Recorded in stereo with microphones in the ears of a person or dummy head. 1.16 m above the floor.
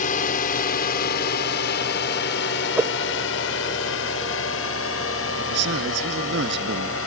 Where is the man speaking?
75° right (ahead or behind).